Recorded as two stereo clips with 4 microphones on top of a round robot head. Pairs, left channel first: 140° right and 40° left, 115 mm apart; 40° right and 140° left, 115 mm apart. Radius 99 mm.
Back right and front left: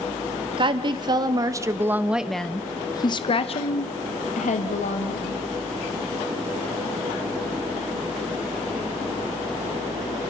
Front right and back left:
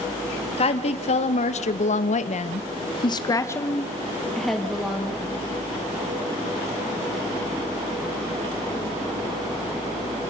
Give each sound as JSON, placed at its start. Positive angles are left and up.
{"t": 0.6, "sound": "a woman speaking", "azimuth_deg": -5, "distance_m": 1.8}